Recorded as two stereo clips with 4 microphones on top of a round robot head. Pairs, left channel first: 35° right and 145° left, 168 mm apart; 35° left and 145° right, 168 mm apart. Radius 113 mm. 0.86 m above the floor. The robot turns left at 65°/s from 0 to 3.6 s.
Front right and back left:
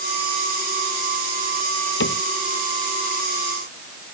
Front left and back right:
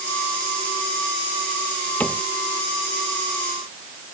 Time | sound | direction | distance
2.0 | a cupboard door | 50° right | ?